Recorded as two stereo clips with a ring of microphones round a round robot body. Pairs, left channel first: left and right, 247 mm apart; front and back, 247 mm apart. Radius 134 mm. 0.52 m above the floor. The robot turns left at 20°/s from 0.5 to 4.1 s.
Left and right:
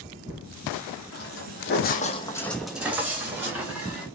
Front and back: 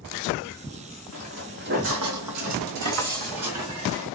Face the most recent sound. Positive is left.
turn(degrees=180)